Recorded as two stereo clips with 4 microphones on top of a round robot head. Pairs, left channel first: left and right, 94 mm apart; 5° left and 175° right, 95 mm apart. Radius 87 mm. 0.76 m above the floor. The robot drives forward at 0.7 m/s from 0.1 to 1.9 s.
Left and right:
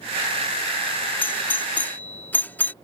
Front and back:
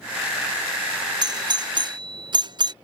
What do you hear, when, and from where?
1.2 s a doorbell: 160° left